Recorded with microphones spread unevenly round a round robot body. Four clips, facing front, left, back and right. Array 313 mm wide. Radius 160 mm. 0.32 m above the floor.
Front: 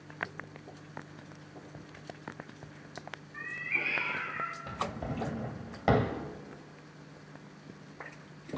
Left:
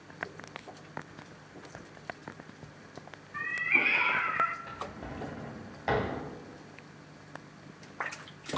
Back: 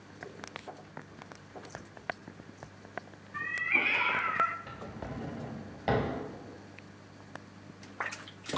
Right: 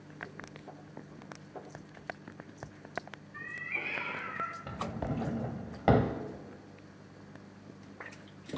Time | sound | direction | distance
3.3 | a cat meowing | 125° left | 1.1 m
4.7 | a drawer | 65° right | 1.0 m